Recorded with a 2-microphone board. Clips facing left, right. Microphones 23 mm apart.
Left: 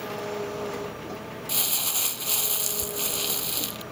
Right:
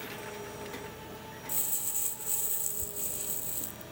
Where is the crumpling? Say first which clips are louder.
Left 12 dB; 75° left (ahead or behind).